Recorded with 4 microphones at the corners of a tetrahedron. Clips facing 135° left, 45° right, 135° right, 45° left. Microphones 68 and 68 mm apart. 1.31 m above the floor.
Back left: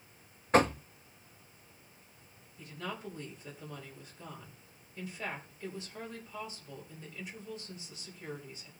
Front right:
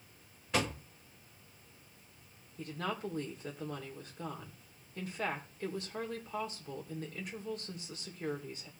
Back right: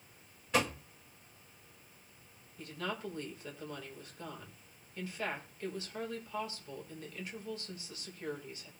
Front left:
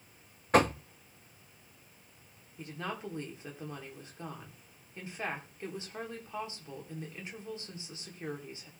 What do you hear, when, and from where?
0.5 s knocking: 85° left, 0.7 m
2.6 s a woman speaking: 20° right, 4 m